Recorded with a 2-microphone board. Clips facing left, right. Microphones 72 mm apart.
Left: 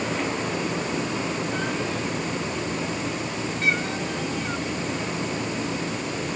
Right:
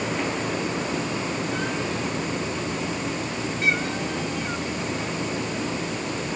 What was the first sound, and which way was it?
Only background noise.